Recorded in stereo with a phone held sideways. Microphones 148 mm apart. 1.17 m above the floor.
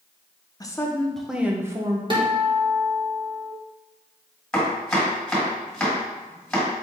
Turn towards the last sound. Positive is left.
turn(degrees=5)  # may be behind; listen again after turning